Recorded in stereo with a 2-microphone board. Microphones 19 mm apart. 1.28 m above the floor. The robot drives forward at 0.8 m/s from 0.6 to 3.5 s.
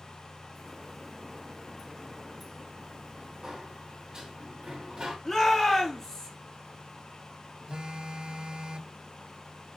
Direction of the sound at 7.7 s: 55° right (ahead or behind).